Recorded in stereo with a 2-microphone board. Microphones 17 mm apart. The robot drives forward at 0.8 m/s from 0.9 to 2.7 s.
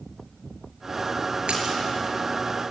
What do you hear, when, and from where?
1.5 s a splash: 75° right (ahead or behind), 5 m